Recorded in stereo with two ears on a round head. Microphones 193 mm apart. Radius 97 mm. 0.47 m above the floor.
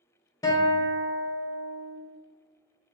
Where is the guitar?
15° left (ahead or behind), 0.5 m.